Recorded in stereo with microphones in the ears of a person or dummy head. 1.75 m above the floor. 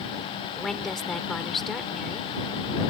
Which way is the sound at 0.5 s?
5° left (ahead or behind).